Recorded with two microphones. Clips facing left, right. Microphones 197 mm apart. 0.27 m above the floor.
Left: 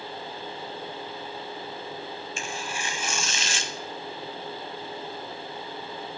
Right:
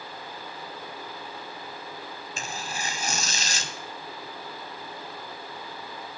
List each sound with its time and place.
2.4 s tearing paper: 40° right (ahead or behind), 0.7 m